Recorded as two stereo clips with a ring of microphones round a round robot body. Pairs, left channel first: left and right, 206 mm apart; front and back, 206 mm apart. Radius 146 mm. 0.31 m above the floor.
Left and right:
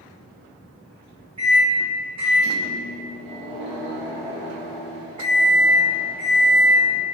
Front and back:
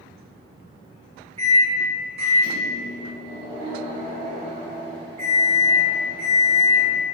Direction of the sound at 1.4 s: 140° right.